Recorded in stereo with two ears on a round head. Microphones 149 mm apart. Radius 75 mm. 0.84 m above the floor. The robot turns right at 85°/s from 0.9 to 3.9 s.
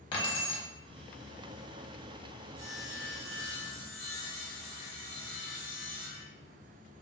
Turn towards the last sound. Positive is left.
turn(degrees=15)